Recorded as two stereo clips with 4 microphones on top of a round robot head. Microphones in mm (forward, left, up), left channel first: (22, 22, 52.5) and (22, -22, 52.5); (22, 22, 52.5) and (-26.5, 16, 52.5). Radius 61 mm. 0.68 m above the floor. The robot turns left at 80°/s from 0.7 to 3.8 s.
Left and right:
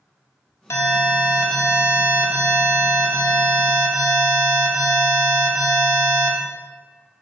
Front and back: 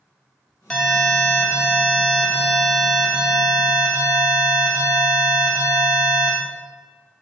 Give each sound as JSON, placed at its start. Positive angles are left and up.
{"t": 0.7, "sound": "an alarm", "azimuth_deg": 85, "distance_m": 1.2}